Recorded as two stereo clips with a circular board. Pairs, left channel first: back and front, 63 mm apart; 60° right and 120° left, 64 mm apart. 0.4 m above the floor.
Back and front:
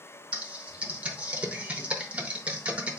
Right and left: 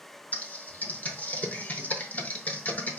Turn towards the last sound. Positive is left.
turn(degrees=-40)